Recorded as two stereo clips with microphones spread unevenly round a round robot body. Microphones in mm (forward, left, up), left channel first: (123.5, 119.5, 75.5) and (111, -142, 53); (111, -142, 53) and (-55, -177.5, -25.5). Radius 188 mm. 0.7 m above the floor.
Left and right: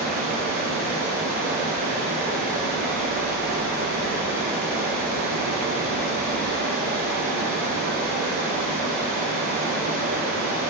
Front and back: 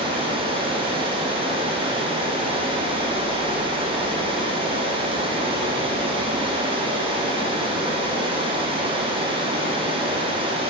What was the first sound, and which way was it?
Running water, 140° right.